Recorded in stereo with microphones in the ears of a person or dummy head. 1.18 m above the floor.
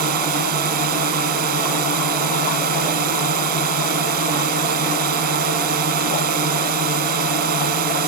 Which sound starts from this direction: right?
A drone, at 0.0 s.